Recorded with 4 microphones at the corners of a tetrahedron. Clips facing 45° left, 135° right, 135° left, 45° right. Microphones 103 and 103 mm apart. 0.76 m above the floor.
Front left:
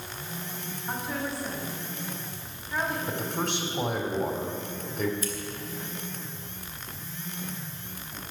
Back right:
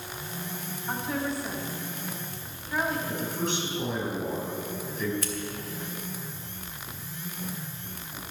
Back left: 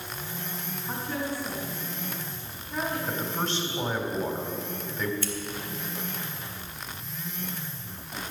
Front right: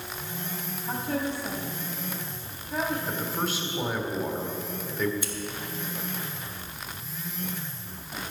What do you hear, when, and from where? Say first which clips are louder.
0.9 s a woman speaking: back right 2 dB, front right 3 dB; 50° right, 4 m
3.1 s a man speaking: even, even; 40° left, 2 m
5.2 s scissors: front left 1 dB, back left 3 dB; 120° right, 1.4 m